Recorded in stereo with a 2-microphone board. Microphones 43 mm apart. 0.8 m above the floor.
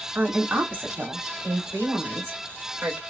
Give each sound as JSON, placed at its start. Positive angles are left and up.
{"t": 0.1, "sound": "a woman speaking", "side_deg": -45, "distance_m": 1.7}